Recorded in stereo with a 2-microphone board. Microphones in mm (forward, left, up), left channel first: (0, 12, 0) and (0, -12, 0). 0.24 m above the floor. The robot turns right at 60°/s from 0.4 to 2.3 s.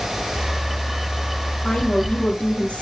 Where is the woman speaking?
15° left, 5.5 m; by 2.8 s 55° left, 5.5 m.